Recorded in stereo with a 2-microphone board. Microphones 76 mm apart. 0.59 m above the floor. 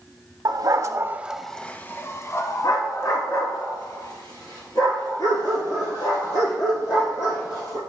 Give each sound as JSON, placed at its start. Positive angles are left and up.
{"t": 0.5, "sound": "a dog barking", "side_deg": -65, "distance_m": 0.7}